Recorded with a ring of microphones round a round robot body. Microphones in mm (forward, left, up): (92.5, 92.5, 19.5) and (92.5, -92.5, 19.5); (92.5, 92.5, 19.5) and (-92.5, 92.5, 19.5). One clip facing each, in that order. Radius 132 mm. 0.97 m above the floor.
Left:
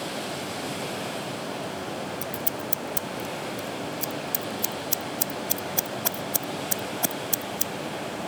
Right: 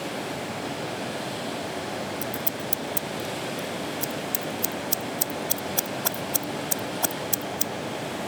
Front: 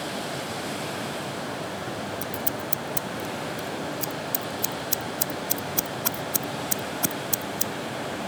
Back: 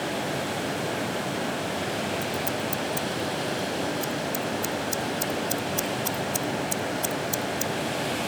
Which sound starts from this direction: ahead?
Scissors, at 2.2 s.